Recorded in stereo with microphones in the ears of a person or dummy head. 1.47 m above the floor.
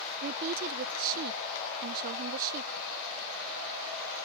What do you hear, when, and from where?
0.2 s a woman speaking: 55° right (ahead or behind)